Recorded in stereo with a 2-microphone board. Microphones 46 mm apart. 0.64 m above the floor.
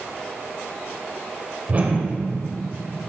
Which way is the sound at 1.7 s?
35° right (ahead or behind).